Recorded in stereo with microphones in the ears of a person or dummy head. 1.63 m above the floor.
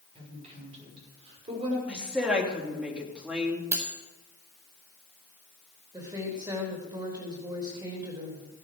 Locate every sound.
0.1 s a woman speaking: 35° right (ahead or behind), 6 m
1.9 s a woman speaking: 5° right (ahead or behind), 3 m
3.7 s cutlery clinking: 20° right (ahead or behind), 2.5 m
5.9 s a woman speaking: 20° right (ahead or behind), 3.5 m